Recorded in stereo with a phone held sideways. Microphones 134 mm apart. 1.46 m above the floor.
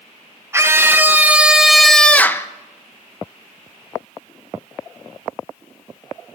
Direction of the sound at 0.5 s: 20° right (ahead or behind).